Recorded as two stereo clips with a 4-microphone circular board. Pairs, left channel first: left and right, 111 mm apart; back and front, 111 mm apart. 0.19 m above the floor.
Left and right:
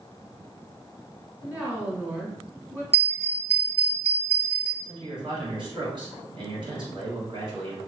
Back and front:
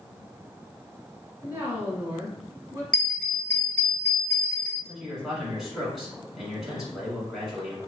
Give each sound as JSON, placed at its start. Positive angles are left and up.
{"t": 1.4, "sound": "a woman speaking", "azimuth_deg": -35, "distance_m": 1.2}
{"t": 2.9, "sound": "a bell", "azimuth_deg": -100, "distance_m": 1.4}
{"t": 4.8, "sound": "a man speaking", "azimuth_deg": -85, "distance_m": 1.5}